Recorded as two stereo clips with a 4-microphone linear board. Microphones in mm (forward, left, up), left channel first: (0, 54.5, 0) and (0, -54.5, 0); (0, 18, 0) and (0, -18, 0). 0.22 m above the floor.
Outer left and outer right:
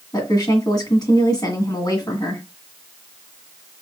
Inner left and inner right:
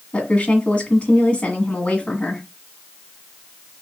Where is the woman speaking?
35° left (ahead or behind), 1.7 m.